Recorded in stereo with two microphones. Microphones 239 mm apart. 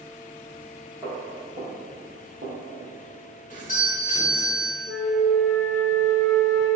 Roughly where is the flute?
Right.